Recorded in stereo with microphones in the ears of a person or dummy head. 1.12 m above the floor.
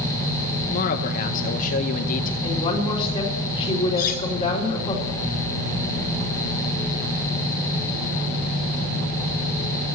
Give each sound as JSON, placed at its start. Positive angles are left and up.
{"t": 0.7, "sound": "a man speaking", "side_deg": 45, "distance_m": 0.9}
{"t": 2.4, "sound": "a woman speaking", "side_deg": 30, "distance_m": 3.5}
{"t": 4.0, "sound": "cutlery clinking", "side_deg": 50, "distance_m": 2.5}